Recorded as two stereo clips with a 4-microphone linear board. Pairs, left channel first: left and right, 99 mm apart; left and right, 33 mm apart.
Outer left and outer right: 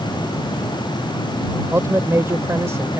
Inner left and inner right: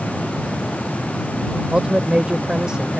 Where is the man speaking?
30° right (ahead or behind).